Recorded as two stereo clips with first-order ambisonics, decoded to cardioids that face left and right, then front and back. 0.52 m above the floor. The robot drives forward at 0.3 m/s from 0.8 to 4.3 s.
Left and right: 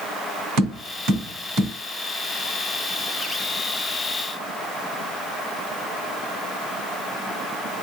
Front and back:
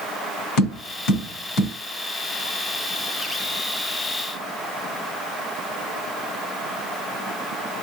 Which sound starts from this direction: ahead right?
Tapping, at 0.6 s.